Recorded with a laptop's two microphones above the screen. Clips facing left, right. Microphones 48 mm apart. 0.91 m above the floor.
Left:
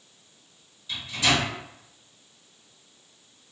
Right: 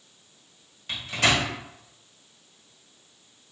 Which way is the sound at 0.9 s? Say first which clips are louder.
Right 1 dB; 60° right (ahead or behind).